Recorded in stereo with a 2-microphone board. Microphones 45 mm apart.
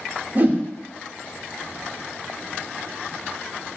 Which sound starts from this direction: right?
A whoosh, at 0.3 s.